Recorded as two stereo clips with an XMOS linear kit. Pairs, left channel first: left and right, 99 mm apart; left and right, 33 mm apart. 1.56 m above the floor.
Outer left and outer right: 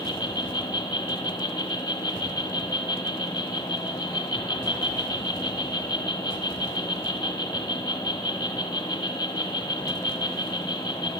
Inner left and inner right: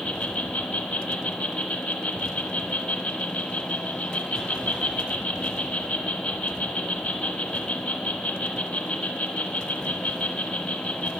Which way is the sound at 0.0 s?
50° left (ahead or behind).